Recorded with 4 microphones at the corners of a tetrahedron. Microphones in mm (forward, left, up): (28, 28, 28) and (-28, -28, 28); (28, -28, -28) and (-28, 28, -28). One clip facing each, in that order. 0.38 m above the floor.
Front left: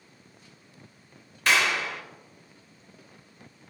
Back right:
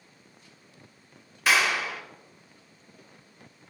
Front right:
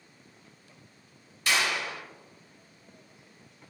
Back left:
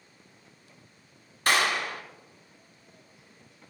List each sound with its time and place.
1.5 s a clap: 140° left, 0.9 m